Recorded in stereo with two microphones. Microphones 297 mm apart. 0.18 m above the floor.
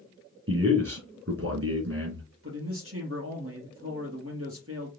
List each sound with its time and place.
0.5 s a man speaking: 50° right (ahead or behind), 3 m
2.4 s a man speaking: 50° right (ahead or behind), 4 m